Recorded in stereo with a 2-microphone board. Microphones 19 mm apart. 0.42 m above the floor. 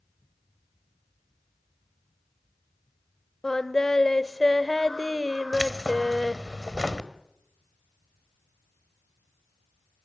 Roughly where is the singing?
Left.